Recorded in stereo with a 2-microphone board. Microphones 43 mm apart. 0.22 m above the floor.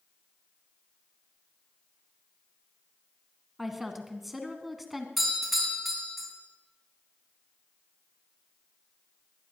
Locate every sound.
3.6 s a woman speaking: 5° right (ahead or behind), 2 m
5.2 s a doorbell: 5° right (ahead or behind), 5.5 m